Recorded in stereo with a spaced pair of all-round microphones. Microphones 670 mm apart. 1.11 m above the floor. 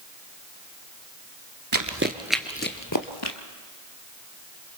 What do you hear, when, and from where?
1.7 s running footsteps: 30° right (ahead or behind), 1.2 m; by 3.4 s 40° left (ahead or behind), 1.7 m